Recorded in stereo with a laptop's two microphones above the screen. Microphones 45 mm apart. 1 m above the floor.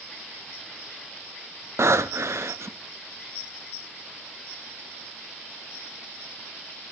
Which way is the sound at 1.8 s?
80° right.